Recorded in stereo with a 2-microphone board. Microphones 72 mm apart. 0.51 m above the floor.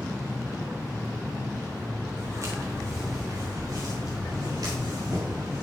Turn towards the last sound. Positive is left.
turn(degrees=-60)  # may be behind; listen again after turning